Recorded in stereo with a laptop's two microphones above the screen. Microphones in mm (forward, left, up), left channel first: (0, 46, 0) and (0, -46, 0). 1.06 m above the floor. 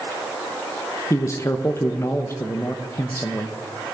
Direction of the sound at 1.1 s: 30° left (ahead or behind).